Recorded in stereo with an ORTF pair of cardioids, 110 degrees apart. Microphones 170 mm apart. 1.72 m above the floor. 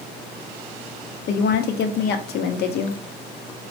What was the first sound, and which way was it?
A woman speaking, 65° left.